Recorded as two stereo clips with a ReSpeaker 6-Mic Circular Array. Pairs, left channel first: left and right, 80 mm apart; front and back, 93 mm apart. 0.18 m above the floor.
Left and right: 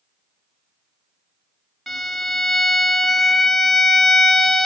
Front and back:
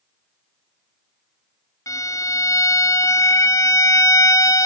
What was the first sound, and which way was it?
A violin, straight ahead.